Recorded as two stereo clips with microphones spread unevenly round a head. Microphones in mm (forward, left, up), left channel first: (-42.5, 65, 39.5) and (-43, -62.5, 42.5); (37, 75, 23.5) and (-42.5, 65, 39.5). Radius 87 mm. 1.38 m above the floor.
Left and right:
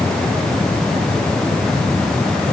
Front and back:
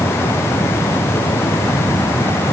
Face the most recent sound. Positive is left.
No sound to turn to.